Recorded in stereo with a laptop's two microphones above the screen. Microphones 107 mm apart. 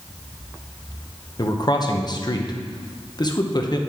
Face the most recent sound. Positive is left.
turn(degrees=40)  # may be behind; listen again after turning